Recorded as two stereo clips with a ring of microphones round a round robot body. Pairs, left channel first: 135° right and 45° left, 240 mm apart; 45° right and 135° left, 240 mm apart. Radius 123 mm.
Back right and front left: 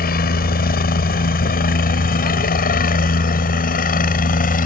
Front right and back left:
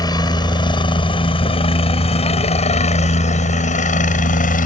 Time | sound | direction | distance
0.0 | a helicopter | 110° right | ?